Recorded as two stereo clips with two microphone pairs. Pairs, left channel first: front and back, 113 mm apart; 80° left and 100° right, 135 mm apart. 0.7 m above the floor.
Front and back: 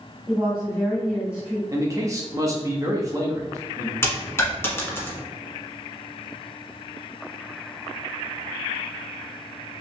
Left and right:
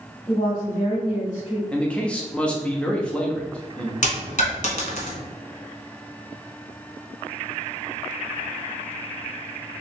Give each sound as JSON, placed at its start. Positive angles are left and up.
{"t": 0.3, "sound": "a woman speaking", "azimuth_deg": 95, "distance_m": 1.5}
{"t": 1.7, "sound": "a man speaking", "azimuth_deg": 155, "distance_m": 0.8}
{"t": 4.0, "sound": "a dropped coin", "azimuth_deg": 70, "distance_m": 1.2}